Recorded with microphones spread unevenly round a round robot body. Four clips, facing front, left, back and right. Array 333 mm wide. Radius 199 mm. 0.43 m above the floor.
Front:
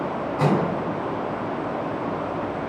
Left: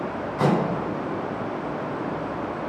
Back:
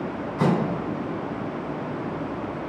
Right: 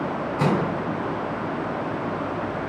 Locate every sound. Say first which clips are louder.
0.4 s a microwave: left 1 dB, front 1 dB; 165° right, 3 m